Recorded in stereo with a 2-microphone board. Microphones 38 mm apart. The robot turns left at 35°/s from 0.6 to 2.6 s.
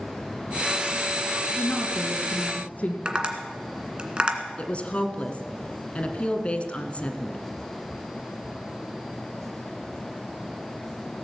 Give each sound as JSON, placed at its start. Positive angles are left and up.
{"t": 1.5, "sound": "a woman speaking", "azimuth_deg": 105, "distance_m": 2.5}
{"t": 3.0, "sound": "tapping", "side_deg": -30, "distance_m": 1.7}
{"t": 4.6, "sound": "a woman speaking", "side_deg": 35, "distance_m": 1.5}